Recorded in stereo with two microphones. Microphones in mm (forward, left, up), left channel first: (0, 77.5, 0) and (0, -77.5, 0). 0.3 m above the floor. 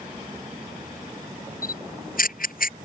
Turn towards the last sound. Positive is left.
turn(degrees=65)  # may be behind; listen again after turning